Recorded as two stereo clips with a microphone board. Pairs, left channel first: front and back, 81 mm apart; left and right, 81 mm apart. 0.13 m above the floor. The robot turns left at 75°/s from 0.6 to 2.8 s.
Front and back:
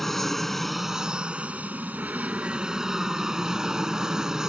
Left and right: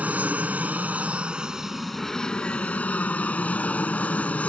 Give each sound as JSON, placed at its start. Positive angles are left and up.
{"t": 0.0, "sound": "an aircraft", "azimuth_deg": -85}